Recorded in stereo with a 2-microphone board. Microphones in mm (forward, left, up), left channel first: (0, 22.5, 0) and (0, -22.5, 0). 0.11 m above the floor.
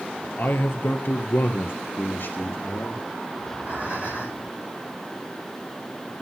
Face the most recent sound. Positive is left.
turn(degrees=-35)  # may be behind; listen again after turning